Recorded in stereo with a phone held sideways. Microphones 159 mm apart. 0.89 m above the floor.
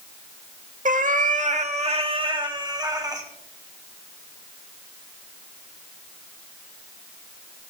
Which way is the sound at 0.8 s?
55° right (ahead or behind).